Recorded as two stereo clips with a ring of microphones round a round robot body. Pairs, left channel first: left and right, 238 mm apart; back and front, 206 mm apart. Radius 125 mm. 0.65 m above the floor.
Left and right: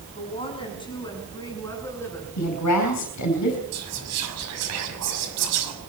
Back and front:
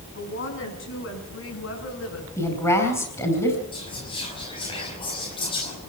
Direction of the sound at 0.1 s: 155° left.